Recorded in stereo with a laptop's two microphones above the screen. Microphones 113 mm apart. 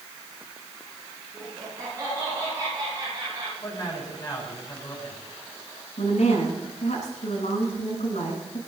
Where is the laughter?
30° right (ahead or behind), 10 m; by 3.5 s 35° right (ahead or behind), 8 m.